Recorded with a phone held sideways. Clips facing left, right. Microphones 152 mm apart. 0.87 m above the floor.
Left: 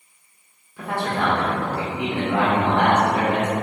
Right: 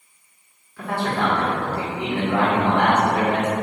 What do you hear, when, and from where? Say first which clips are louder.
0.8 s a man speaking: right 1 dB; 15° left (ahead or behind), 1.1 m